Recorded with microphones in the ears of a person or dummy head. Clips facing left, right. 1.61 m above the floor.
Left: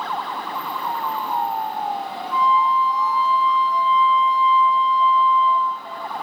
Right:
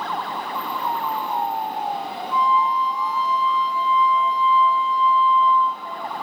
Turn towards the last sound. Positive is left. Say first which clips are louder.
# left 1 dB
turn(degrees=-35)  # may be behind; listen again after turning